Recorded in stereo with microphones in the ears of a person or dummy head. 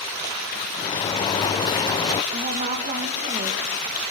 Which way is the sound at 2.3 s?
35° right (ahead or behind).